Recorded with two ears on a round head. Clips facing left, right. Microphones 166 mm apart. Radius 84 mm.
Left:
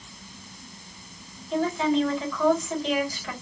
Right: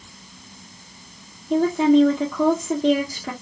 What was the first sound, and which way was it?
A woman speaking, 40° right (ahead or behind).